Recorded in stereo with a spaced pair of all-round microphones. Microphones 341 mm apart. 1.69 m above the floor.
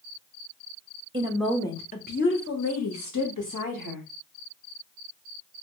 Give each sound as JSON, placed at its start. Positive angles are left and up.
{"t": 1.1, "sound": "a woman speaking", "side_deg": -15, "distance_m": 0.6}